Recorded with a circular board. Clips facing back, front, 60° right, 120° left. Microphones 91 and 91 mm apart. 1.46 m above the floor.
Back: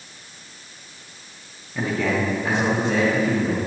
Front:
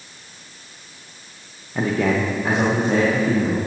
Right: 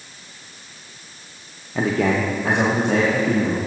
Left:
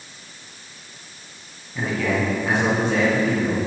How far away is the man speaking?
About 0.7 m.